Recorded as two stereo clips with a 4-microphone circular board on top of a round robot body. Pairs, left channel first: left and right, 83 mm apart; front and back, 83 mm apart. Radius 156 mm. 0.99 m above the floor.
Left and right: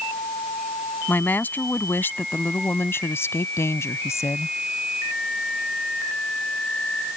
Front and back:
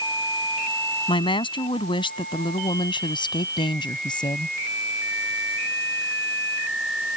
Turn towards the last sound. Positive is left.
turn(degrees=35)